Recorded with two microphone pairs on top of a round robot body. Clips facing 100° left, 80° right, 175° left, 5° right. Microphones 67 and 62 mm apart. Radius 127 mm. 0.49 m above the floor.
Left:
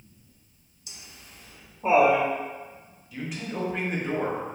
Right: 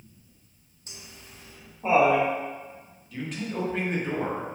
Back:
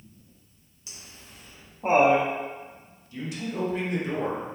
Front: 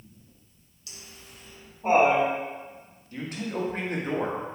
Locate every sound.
0.9 s laughter: 115° right, 1.2 m; by 2.3 s 160° left, 1.1 m
3.1 s a man speaking: 20° left, 1.0 m